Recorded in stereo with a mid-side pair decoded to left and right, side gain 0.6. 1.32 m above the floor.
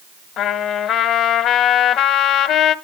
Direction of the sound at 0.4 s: 60° left.